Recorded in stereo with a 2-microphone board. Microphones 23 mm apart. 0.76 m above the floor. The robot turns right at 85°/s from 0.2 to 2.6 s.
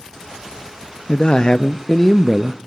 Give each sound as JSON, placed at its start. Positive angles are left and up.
{"t": 1.1, "sound": "a man speaking", "azimuth_deg": 90, "distance_m": 0.5}